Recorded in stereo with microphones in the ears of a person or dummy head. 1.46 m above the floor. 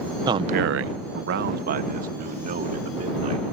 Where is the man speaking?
20° right (ahead or behind); by 3.4 s 40° right (ahead or behind).